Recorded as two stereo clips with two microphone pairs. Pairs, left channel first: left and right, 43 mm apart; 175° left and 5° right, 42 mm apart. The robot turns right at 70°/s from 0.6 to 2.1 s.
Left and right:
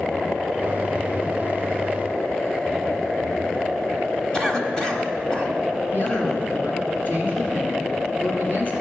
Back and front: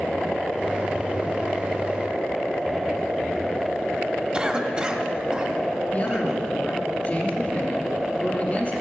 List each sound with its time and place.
4.3 s a cough: 30° left, 1.4 m
5.9 s a man speaking: 130° left, 2.5 m